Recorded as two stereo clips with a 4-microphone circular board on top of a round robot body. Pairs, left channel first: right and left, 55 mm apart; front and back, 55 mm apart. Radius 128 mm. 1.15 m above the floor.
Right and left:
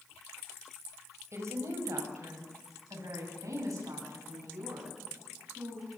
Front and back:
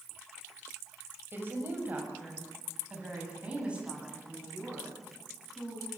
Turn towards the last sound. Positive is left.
turn(degrees=105)